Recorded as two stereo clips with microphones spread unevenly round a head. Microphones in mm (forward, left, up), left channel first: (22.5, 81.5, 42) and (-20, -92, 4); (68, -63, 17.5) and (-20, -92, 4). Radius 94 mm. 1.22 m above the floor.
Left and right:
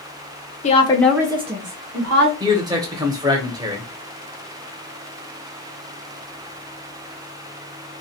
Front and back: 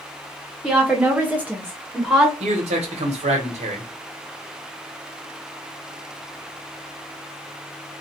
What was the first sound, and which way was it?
A woman speaking, 130° left.